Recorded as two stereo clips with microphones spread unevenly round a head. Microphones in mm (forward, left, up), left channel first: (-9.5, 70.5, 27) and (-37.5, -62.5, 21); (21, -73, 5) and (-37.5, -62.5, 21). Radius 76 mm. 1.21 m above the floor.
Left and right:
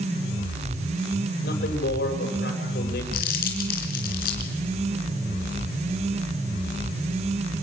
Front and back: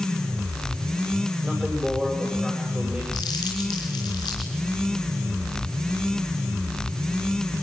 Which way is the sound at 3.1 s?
45° left.